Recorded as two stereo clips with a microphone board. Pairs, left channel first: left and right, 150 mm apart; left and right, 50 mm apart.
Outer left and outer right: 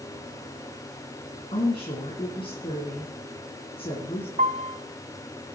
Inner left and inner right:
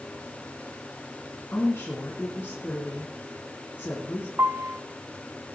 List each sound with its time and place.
1.5 s a woman speaking: 35° left (ahead or behind), 2.5 m
4.4 s a piano: 60° right (ahead or behind), 0.7 m